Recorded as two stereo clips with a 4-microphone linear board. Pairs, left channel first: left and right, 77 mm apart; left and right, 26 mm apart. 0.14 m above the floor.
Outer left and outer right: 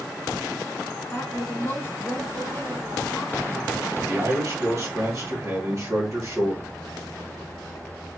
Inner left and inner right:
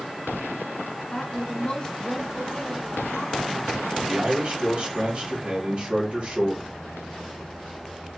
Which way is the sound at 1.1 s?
30° left (ahead or behind).